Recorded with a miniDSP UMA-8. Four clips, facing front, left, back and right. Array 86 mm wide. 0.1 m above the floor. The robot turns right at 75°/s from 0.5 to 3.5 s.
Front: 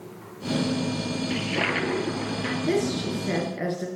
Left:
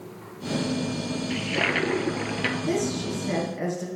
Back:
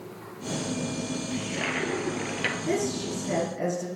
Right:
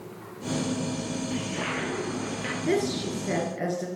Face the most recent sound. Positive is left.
turn(degrees=-10)